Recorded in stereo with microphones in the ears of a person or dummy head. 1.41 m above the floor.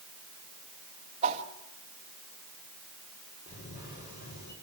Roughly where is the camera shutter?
Left.